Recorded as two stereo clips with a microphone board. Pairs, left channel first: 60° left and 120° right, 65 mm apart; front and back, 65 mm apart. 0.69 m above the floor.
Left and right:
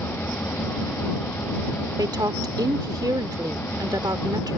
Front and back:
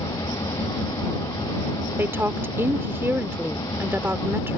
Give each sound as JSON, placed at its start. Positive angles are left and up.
{"t": 0.0, "sound": "an engine running", "azimuth_deg": 0}
{"t": 2.0, "sound": "a woman speaking", "azimuth_deg": -125}